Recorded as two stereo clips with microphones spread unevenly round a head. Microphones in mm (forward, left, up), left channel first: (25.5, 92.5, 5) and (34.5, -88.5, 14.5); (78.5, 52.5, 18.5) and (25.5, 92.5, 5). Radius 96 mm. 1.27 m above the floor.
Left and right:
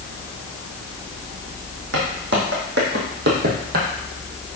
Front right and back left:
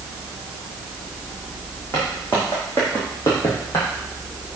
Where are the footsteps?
110° right, 3 m; by 3.9 s 70° right, 2 m.